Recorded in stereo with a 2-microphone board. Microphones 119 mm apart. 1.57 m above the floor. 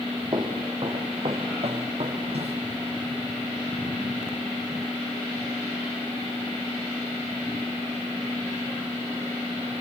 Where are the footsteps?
40° right (ahead or behind), 2.5 m; by 2.6 s 60° right (ahead or behind), 3 m.